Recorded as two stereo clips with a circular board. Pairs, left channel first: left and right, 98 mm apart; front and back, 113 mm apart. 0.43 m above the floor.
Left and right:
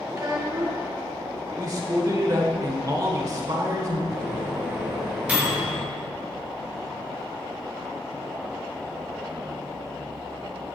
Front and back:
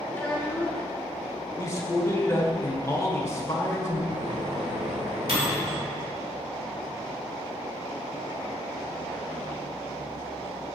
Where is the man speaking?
55° right, 1.0 m.